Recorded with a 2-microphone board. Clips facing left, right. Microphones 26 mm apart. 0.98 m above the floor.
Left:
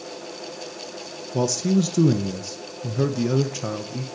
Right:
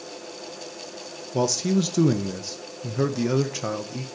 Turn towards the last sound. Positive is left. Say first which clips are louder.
# left 1 dB
turn(degrees=-10)  # may be behind; listen again after turning